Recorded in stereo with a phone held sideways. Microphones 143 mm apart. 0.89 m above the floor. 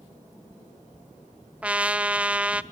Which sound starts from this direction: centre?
A trumpet, at 1.6 s.